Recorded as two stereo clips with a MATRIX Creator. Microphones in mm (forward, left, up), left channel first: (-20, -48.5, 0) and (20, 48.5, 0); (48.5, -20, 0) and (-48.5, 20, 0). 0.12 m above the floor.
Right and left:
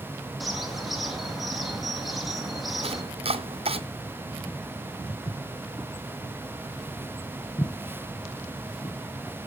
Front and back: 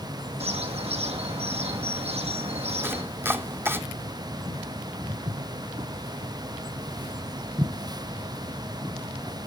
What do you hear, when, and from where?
0.4 s a bird: 155° left, 2.5 m
2.8 s chopping: 90° left, 0.8 m
5.1 s footsteps: 115° left, 1.9 m; by 9.0 s 130° right, 3 m